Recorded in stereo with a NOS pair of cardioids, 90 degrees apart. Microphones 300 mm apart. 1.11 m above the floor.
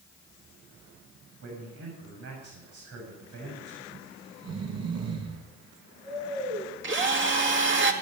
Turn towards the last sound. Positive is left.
turn(degrees=-40)